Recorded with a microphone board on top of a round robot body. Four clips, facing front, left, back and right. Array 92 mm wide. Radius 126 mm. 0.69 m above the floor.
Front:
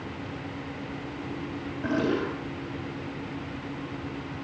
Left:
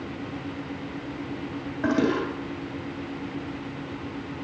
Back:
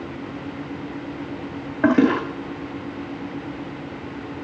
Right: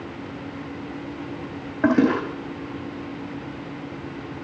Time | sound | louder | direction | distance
1.8 | a toilet flushing | right 5 dB, back 10 dB | 145° right | 4.5 m